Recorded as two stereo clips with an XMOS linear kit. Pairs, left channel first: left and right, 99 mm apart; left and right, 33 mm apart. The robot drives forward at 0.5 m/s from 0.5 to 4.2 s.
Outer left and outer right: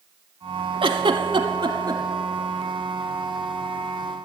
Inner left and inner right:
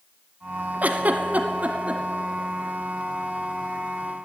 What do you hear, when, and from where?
0.8 s a giggle: 55° right (ahead or behind), 0.7 m; by 2.0 s 40° right (ahead or behind), 0.9 m